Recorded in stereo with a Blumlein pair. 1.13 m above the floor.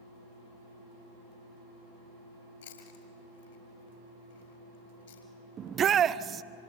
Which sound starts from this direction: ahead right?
A shout, at 5.6 s.